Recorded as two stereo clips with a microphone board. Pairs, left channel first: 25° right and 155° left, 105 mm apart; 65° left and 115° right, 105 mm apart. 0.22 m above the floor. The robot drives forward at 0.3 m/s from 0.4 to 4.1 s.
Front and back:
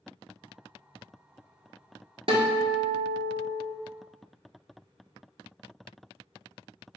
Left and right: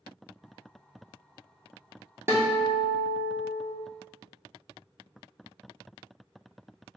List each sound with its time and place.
2.3 s a guitar: 175° right, 1.1 m; by 3.8 s straight behind, 1.6 m